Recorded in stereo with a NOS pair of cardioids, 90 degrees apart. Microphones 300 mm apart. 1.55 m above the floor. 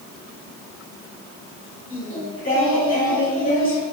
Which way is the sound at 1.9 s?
30° left.